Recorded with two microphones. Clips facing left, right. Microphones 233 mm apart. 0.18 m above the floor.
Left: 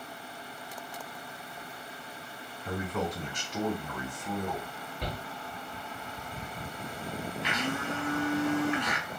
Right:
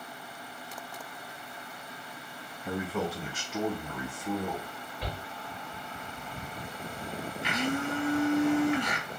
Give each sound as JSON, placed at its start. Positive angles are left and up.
{"t": 2.6, "sound": "a man speaking", "side_deg": -5, "distance_m": 1.2}
{"t": 5.0, "sound": "a shout", "side_deg": 40, "distance_m": 2.5}
{"t": 7.4, "sound": "a blender", "side_deg": -10, "distance_m": 1.5}